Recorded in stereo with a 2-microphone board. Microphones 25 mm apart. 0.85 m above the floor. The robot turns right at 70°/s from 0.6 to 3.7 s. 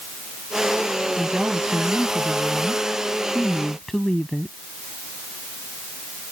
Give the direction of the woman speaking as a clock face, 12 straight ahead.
6 o'clock.